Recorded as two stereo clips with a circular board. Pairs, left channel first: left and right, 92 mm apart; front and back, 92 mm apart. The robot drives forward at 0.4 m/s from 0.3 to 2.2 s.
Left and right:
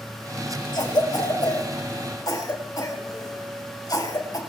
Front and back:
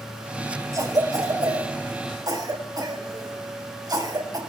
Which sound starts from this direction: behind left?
A cough, at 0.7 s.